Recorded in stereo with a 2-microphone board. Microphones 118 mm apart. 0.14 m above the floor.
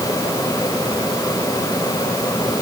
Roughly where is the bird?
I don't hear a bird.